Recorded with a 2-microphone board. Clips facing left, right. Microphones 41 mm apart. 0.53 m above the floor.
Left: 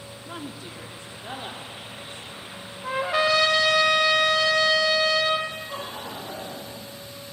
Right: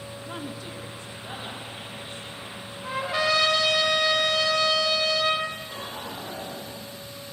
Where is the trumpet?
20° left (ahead or behind), 0.8 m.